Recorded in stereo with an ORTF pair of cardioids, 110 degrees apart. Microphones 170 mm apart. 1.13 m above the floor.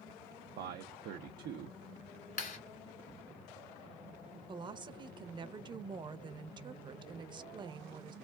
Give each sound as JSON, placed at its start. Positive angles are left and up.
{"t": 0.6, "sound": "a man speaking", "azimuth_deg": -70, "distance_m": 0.5}
{"t": 2.4, "sound": "a clap", "azimuth_deg": 55, "distance_m": 1.9}
{"t": 4.5, "sound": "a woman speaking", "azimuth_deg": -25, "distance_m": 0.6}